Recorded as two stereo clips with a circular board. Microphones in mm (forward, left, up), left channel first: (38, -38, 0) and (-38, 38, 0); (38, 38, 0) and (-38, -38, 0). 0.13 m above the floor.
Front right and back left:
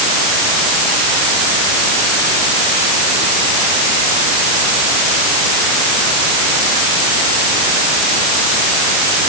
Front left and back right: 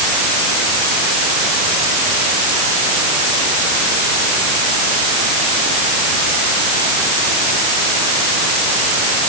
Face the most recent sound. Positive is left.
No sound to turn to.